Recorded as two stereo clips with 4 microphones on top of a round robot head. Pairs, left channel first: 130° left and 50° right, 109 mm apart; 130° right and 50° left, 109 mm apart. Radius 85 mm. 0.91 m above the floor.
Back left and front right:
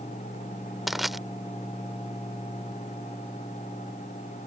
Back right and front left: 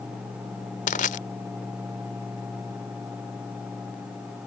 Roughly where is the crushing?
Behind right.